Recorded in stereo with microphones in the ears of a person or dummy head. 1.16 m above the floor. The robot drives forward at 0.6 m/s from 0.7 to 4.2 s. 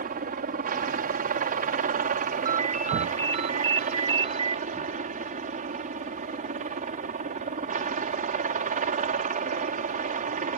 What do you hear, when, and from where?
0.0 s a helicopter: 45° right (ahead or behind); by 10.6 s 40° right (ahead or behind)
2.5 s a ringtone: 40° right (ahead or behind); by 4.6 s 30° right (ahead or behind)